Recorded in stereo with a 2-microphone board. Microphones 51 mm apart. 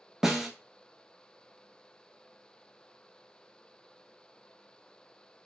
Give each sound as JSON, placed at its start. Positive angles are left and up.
{"t": 0.2, "sound": "a snare drum", "side_deg": -5, "distance_m": 0.5}